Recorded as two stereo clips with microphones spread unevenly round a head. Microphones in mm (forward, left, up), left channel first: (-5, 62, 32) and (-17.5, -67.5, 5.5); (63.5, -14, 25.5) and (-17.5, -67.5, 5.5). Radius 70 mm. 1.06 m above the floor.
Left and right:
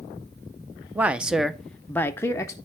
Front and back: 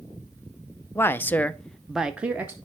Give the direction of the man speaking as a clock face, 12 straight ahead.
1 o'clock.